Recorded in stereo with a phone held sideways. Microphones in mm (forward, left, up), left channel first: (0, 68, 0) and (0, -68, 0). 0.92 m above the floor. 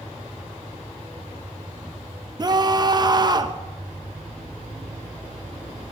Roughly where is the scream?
Right.